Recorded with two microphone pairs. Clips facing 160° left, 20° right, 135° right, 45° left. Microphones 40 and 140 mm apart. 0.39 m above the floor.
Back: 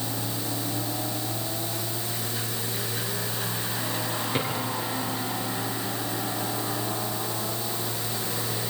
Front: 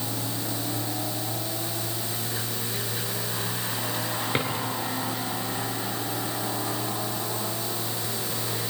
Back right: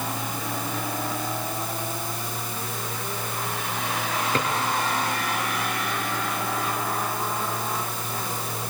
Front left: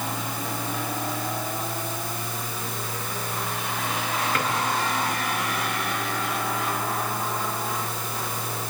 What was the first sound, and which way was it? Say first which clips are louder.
A drawer: front 1 dB, back right 3 dB; 75° right.